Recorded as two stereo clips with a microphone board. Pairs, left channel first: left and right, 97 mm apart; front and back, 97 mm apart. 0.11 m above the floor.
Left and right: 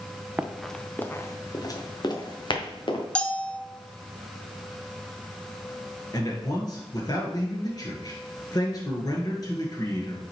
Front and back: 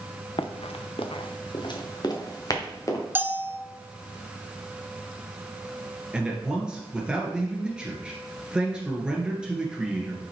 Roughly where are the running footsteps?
Ahead.